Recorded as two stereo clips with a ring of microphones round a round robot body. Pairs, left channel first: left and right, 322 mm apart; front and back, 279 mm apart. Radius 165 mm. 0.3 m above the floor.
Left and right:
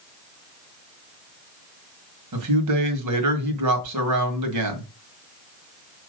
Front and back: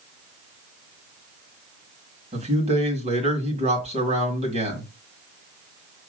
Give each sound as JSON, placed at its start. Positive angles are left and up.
{"t": 2.3, "sound": "a man speaking", "azimuth_deg": -110, "distance_m": 1.8}